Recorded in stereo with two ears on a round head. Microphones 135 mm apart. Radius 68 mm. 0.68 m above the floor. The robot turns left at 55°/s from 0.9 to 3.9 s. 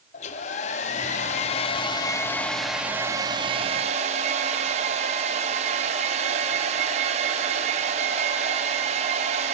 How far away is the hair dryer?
About 0.5 m.